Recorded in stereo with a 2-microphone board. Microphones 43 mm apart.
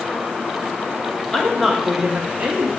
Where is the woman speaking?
10° left (ahead or behind), 1.1 m; by 2.7 s 45° right (ahead or behind), 1.3 m.